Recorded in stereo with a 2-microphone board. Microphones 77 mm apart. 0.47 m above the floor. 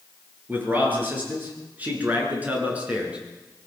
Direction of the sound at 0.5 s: 25° right (ahead or behind).